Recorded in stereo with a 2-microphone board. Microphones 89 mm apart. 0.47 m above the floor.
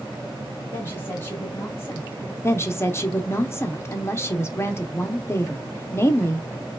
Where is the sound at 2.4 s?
30° left (ahead or behind), 0.8 m.